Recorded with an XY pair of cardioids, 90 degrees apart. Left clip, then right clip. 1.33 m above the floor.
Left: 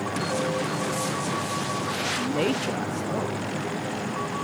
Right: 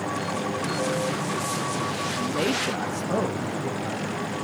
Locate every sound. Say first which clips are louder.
2.2 s a man speaking: even; 35° left, 1.0 m; by 4.3 s 60° right, 2.5 m